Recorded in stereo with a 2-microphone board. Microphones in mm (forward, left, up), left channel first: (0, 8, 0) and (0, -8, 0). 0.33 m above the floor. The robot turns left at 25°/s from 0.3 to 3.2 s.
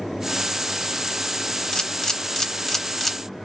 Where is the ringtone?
No ringtone in this recording.